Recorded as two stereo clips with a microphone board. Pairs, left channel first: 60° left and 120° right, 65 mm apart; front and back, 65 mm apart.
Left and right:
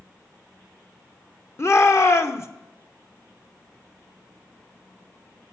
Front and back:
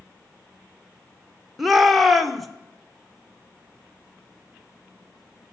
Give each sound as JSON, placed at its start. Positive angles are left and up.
{"t": 1.6, "sound": "a shout", "azimuth_deg": 90, "distance_m": 0.9}